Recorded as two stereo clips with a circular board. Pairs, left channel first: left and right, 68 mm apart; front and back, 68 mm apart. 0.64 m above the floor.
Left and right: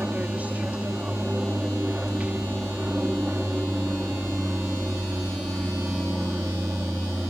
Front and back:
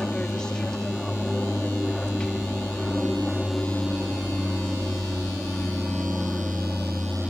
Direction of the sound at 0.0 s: 65° right.